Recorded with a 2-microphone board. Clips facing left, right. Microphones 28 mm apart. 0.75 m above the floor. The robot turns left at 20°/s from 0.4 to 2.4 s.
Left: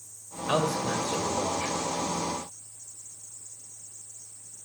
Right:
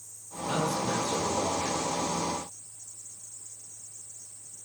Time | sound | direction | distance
0.5 | a man speaking | 60° left (ahead or behind) | 3.5 m